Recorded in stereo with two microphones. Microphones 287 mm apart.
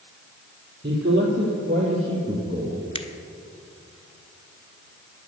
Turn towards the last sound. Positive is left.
turn(degrees=20)  # may be behind; listen again after turning